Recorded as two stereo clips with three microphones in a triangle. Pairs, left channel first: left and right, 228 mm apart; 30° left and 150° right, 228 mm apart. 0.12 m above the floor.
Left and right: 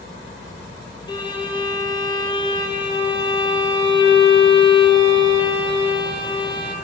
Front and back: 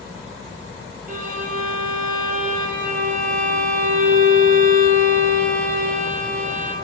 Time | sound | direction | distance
1.1 | a violin | 160° left | 0.8 m